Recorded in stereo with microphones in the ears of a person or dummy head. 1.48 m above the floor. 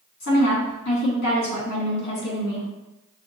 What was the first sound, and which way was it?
A woman speaking, 55° left (ahead or behind).